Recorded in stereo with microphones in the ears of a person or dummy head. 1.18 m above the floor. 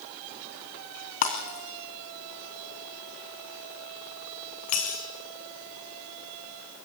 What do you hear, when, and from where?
1.2 s breaking glass: 40° left (ahead or behind), 3 m